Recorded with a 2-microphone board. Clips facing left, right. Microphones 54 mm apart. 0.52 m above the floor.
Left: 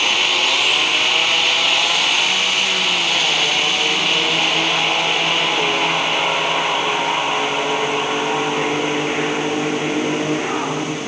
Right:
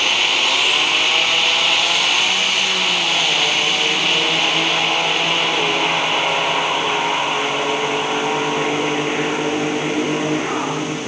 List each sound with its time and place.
Only background noise.